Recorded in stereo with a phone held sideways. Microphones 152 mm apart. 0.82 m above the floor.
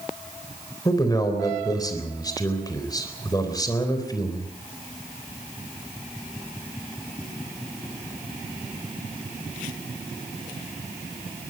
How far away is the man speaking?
About 3.5 m.